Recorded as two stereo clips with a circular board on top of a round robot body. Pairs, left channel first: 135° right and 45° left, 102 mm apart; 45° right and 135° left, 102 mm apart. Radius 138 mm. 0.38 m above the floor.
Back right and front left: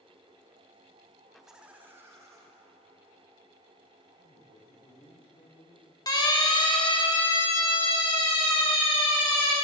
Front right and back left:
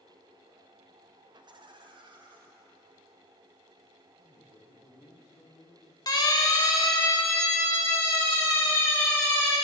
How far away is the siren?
About 3 m.